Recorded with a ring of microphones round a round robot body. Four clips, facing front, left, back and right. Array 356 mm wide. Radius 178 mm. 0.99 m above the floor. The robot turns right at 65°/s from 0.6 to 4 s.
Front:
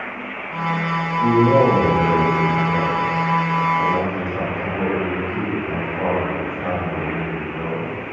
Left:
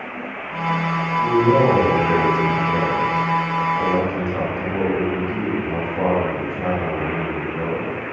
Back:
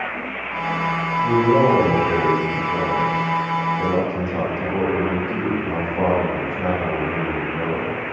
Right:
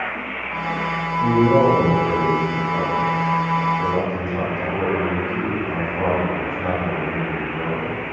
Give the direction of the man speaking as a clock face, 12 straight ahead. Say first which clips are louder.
Right 1 dB, front 2 dB; 2 o'clock.